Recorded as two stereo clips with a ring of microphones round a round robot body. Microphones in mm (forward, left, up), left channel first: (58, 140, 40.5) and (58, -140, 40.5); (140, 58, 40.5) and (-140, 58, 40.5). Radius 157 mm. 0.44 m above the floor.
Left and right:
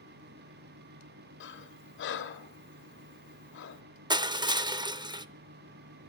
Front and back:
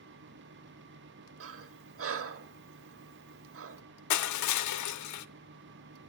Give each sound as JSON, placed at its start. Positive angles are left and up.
{"t": 1.4, "sound": "breathing", "azimuth_deg": 140, "distance_m": 1.4}
{"t": 4.1, "sound": "crushing", "azimuth_deg": -15, "distance_m": 0.7}